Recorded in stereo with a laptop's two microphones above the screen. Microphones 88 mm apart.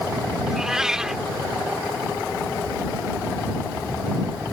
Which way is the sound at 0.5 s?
5° right (ahead or behind).